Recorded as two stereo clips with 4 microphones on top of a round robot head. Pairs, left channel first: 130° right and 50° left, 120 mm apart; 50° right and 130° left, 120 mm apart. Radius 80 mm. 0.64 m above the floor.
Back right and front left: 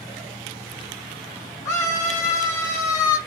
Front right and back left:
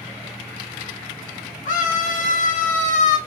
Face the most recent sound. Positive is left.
turn(degrees=-65)